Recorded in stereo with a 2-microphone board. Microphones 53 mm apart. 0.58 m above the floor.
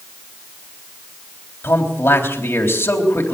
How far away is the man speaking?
About 3.5 m.